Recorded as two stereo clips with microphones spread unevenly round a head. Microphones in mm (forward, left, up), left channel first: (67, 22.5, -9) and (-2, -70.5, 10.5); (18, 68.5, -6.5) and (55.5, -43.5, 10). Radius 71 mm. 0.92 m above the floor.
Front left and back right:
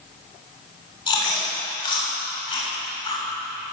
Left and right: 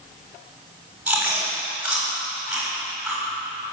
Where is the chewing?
10° left, 7 m.